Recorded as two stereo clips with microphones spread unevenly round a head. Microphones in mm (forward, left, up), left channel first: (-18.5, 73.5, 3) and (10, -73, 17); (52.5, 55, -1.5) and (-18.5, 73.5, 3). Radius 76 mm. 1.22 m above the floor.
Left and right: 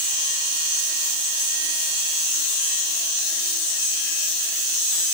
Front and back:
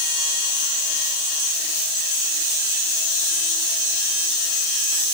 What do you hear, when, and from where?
Only background noise.